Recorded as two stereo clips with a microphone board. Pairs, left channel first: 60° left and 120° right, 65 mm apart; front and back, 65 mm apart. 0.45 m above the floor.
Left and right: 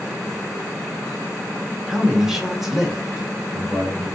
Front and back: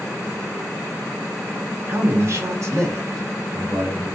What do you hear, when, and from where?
1.9 s a man speaking: 160° left, 0.9 m; by 4.1 s 155° left, 2 m